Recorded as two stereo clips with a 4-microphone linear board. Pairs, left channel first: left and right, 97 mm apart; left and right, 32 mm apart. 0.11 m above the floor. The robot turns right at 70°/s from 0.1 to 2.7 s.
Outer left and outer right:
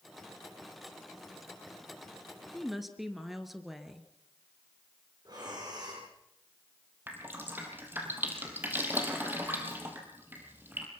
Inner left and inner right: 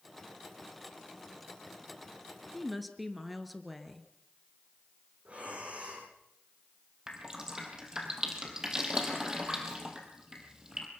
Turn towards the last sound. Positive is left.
turn(degrees=-20)  # may be behind; listen again after turning